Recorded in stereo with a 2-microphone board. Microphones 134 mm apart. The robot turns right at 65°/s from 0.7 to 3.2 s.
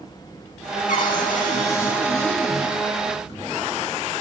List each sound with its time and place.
0.9 s a cupboard door: 75° left, 3 m; by 2.8 s 165° right, 3 m